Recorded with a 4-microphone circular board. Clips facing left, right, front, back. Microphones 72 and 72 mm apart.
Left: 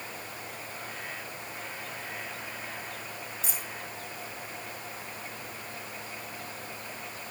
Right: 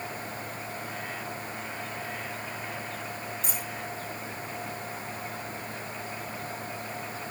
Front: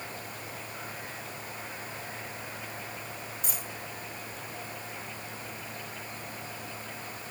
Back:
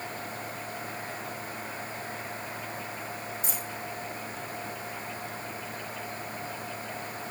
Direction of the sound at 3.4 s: 45° right.